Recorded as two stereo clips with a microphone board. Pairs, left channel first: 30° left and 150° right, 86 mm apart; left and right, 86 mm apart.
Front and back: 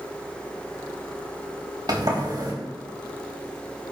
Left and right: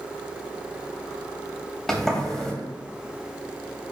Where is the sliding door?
175° left, 3.5 m.